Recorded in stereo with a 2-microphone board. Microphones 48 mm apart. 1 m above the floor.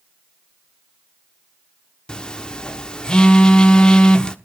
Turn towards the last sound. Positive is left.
turn(degrees=20)  # may be behind; listen again after turning